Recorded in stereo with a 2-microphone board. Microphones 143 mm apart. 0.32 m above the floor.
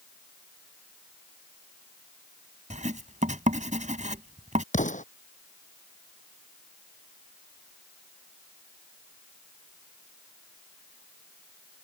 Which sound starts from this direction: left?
An explosion, at 4.7 s.